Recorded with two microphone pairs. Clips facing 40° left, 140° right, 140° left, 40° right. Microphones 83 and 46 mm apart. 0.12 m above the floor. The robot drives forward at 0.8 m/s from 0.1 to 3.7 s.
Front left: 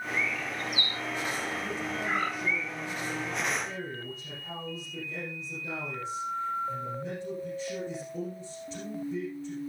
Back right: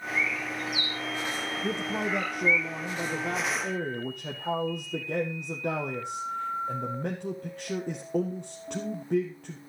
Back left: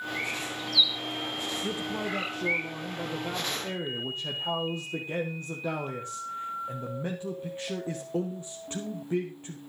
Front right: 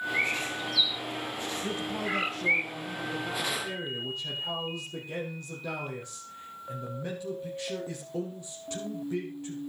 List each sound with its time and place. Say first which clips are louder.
0.1 s a bird: back right 3 dB, front right 5 dB; 10° left, 3.5 m; by 2.6 s 25° left, 1.9 m
1.6 s a man speaking: back right 3 dB, front right 1 dB; 135° right, 1.9 m; by 9.6 s 160° right, 3 m